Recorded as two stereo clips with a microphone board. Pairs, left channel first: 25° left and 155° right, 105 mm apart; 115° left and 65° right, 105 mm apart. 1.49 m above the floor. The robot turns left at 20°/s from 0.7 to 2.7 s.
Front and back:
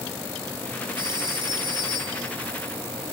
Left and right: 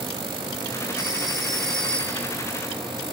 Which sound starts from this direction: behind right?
A phone ringing, at 1.0 s.